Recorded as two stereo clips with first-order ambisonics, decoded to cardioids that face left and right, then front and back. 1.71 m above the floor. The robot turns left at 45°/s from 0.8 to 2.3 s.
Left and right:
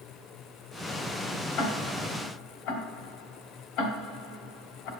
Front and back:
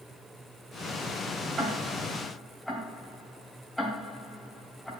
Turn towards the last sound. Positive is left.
turn(degrees=85)